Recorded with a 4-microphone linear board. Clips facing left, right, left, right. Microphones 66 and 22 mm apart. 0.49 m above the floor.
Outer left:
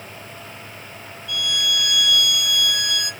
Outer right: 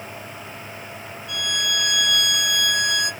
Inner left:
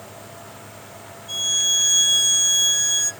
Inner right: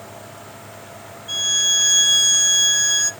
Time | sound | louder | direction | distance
1.3 | a violin | outer left 2 dB, inner right 2 dB | 25° right (ahead or behind) | 1.0 m